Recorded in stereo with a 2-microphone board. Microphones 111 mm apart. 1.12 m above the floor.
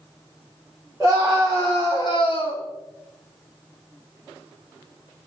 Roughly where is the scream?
Centre.